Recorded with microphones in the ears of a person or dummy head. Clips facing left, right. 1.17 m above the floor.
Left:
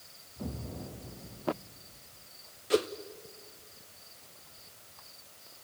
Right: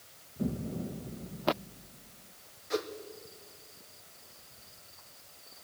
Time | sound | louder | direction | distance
0.4 | an explosion | right 6 dB | 20° right (ahead or behind) | 1.6 m
2.7 | a whoosh | left 6 dB | 45° left (ahead or behind) | 1.1 m